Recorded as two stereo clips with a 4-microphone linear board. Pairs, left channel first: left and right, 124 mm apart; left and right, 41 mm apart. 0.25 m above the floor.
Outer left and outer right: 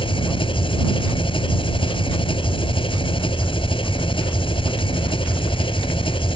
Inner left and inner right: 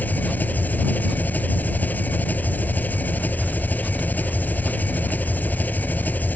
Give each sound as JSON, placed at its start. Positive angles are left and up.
{"t": 0.0, "sound": "an engine running", "side_deg": 45}